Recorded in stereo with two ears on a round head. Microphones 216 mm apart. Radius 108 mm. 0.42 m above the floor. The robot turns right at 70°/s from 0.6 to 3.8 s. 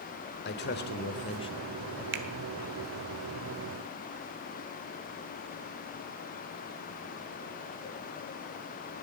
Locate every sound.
0.5 s a man speaking: 90° left, 1.3 m; by 2.0 s 170° right, 1.3 m
2.1 s a finger snap: 50° right (ahead or behind), 1.4 m; by 2.2 s 45° right (ahead or behind), 1.4 m